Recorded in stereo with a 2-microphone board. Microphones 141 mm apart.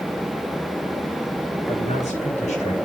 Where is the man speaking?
55° left (ahead or behind), 7 m; by 2.8 s 60° left (ahead or behind), 7.5 m.